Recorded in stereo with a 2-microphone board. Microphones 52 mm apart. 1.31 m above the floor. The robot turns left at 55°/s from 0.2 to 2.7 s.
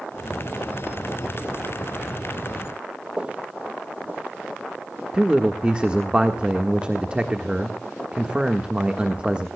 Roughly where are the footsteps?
Right.